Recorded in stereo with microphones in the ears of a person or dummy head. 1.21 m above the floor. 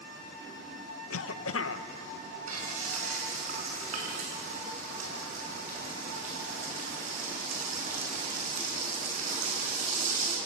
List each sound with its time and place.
1.1 s a cough: 75° left (ahead or behind), 0.9 m
2.5 s frying: 50° right (ahead or behind), 4.5 m